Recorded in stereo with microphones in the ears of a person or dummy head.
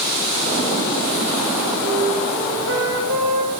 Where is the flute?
55° right (ahead or behind), 3.5 m.